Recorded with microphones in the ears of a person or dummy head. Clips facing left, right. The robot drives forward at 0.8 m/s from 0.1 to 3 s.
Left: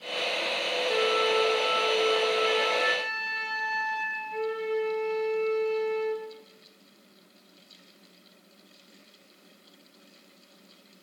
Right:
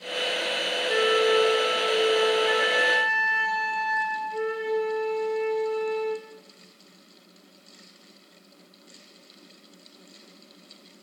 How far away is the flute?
About 3.5 m.